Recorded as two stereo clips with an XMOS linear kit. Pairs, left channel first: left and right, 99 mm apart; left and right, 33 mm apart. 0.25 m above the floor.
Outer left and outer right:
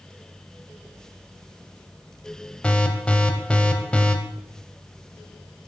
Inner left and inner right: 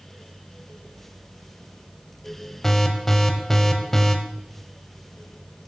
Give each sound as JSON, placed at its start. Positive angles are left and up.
{"t": 2.6, "sound": "an alarm", "side_deg": 10, "distance_m": 0.6}